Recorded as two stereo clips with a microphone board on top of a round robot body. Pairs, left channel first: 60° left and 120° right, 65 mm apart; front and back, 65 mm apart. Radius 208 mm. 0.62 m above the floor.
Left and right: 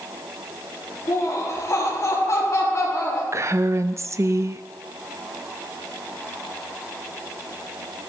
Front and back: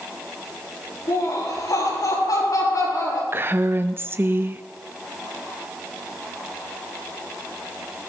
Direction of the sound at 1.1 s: 20° left.